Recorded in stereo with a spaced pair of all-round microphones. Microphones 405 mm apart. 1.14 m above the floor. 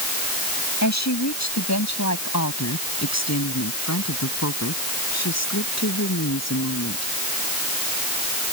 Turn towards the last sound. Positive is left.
turn(degrees=40)  # may be behind; listen again after turning